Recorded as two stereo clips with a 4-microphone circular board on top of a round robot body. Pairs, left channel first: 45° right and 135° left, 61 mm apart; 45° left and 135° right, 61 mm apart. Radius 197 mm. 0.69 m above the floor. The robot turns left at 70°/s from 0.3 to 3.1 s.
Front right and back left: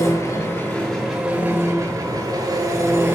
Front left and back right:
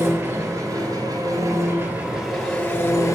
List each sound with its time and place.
0.0 s an engine running: 80° right, 1.8 m; by 3.1 s 80° left, 1.8 m